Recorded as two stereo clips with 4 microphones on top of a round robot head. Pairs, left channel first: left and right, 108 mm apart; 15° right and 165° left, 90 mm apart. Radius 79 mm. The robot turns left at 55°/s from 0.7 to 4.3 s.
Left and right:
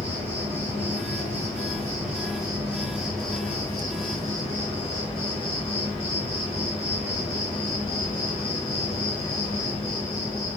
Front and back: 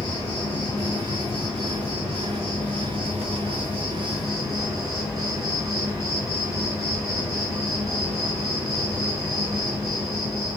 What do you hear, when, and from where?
0.0 s an insect: 50° right, 1.4 m; by 10.6 s 115° left, 1.4 m